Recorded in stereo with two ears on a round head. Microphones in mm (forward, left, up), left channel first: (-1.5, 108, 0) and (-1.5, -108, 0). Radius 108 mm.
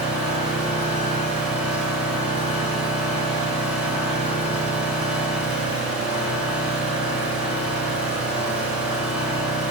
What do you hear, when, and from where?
0.0 s an engine running: 5° right (ahead or behind), 5 m